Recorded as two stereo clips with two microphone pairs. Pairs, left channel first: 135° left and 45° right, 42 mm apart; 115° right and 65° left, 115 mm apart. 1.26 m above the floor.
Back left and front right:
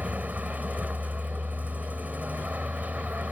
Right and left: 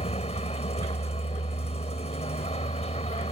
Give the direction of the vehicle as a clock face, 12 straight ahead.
3 o'clock.